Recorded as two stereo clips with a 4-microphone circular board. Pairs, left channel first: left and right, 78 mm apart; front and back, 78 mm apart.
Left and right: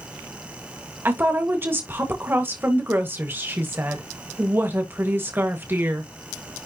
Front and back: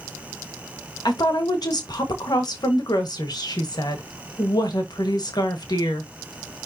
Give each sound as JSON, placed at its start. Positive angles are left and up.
{"t": 1.1, "sound": "a woman speaking", "azimuth_deg": -30, "distance_m": 1.6}